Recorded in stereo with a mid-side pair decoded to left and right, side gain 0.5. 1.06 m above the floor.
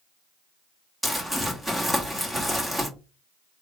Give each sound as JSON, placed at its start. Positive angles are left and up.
{"t": 1.0, "sound": "crumpling", "azimuth_deg": -10, "distance_m": 1.5}